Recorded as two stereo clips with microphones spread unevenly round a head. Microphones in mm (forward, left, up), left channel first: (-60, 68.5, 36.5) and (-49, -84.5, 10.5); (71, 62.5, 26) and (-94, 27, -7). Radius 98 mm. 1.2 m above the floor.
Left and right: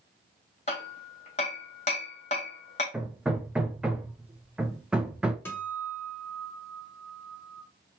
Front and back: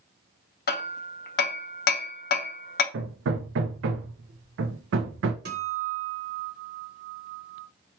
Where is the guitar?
175° left, 1.1 m.